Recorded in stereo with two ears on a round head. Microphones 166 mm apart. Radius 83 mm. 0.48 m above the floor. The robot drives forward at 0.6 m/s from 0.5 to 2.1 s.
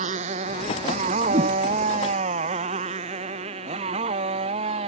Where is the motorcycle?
35° right (ahead or behind); by 4.9 s 30° right (ahead or behind).